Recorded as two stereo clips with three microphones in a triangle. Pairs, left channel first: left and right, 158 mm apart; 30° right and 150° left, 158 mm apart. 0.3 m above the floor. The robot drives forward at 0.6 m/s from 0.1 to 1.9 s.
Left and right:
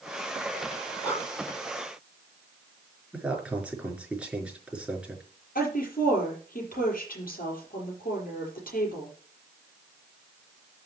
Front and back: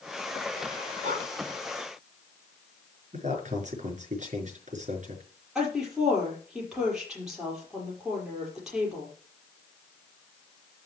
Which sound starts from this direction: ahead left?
A woman speaking, at 5.5 s.